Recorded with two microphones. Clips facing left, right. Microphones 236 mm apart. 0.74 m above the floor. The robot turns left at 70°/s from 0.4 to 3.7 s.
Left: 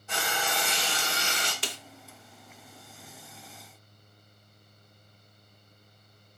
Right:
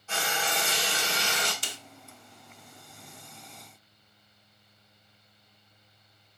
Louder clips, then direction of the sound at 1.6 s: Left 5 dB; 70° left (ahead or behind).